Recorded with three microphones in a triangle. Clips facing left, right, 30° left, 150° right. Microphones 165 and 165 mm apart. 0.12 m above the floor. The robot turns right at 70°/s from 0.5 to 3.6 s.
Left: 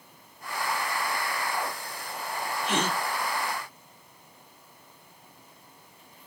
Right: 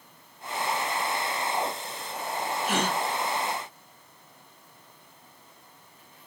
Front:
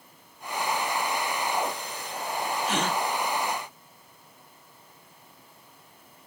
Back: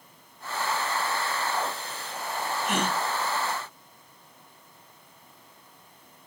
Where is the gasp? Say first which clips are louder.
Even, back 1 dB; 130° right, 3 m; by 3.0 s 110° right, 3 m.